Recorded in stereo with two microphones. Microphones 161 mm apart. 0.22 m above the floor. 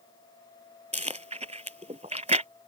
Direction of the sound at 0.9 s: 45° right (ahead or behind).